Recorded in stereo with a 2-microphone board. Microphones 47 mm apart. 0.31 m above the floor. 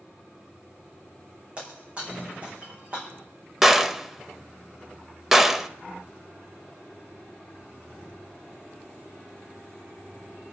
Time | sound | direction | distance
1.6 | breaking glass | 30° right (ahead or behind) | 5.5 m
3.6 | a gunshot | 10° right (ahead or behind) | 0.6 m